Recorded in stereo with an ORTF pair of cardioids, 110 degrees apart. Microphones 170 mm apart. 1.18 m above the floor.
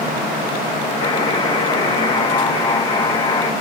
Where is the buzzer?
30° left, 1.3 m.